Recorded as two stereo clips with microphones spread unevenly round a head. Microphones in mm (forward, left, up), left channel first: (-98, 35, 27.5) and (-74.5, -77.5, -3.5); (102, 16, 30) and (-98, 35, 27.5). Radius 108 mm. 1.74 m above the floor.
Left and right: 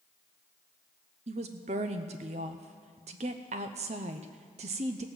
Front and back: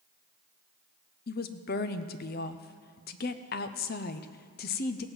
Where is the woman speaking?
35° right, 0.6 m.